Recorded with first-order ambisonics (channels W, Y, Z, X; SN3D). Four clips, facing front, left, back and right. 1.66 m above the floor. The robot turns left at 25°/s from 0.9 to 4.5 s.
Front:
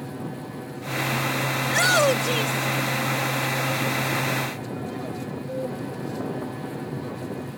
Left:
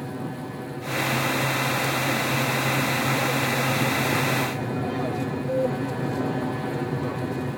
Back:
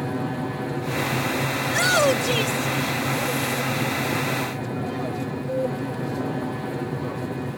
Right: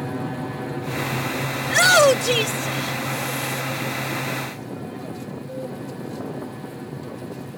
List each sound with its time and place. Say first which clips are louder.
0.0 s an aircraft: right 4 dB, back 7 dB; 150° right; by 7.6 s 120° left
1.6 s a shout: right 10 dB, even; 80° right; by 3.6 s 130° right